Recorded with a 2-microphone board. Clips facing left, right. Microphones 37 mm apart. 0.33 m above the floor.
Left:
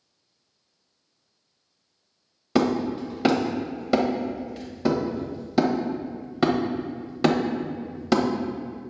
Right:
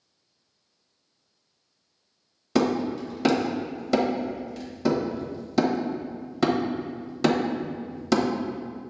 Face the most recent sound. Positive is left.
turn(degrees=15)  # may be behind; listen again after turning